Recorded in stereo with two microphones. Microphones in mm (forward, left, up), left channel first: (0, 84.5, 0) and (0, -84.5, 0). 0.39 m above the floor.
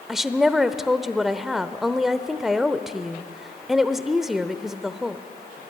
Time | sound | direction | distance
0.1 | a woman speaking | 5° right (ahead or behind) | 0.9 m